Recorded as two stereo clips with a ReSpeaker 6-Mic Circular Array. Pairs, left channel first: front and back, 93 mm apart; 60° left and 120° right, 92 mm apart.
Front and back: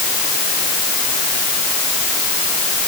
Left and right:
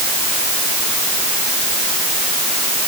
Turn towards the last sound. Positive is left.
No sound to turn to.